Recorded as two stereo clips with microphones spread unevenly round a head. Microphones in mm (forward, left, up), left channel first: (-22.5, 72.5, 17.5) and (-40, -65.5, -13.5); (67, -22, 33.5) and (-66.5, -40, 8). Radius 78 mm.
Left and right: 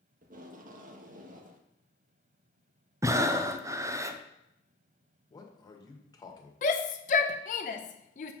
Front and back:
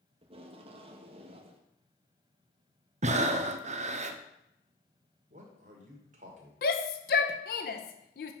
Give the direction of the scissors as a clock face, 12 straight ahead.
I don't hear scissors.